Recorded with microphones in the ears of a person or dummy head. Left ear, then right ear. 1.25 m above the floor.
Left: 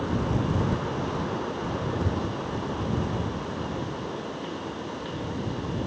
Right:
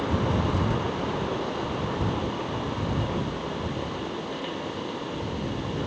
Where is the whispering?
I don't hear whispering.